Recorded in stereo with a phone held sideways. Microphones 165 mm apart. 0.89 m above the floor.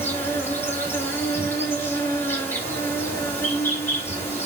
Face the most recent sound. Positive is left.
turn(degrees=15)  # may be behind; listen again after turning